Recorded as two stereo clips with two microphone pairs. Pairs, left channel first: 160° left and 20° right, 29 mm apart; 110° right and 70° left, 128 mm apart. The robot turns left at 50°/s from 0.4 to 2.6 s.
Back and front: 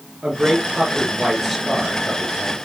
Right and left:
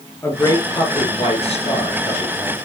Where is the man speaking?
50° right, 2.5 m; by 2.6 s 155° right, 2.5 m.